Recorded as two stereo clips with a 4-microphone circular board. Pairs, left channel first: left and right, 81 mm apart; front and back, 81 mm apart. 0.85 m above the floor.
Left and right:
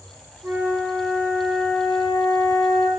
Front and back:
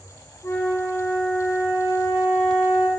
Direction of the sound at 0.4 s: 45° right.